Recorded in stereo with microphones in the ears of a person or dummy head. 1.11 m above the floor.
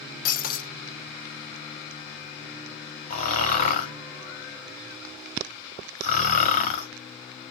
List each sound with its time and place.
0.2 s breaking glass: 55° left (ahead or behind), 0.6 m
3.1 s snoring: 45° left (ahead or behind), 1.1 m